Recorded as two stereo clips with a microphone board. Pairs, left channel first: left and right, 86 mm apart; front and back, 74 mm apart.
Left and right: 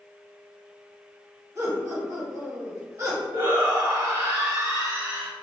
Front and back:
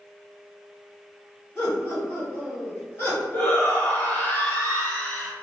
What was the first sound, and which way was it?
Laughter, 45° right.